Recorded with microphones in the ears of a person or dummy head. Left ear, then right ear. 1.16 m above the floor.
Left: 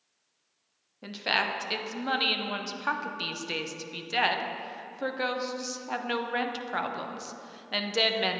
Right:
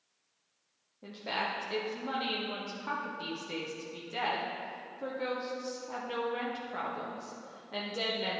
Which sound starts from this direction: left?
A woman speaking, at 1.0 s.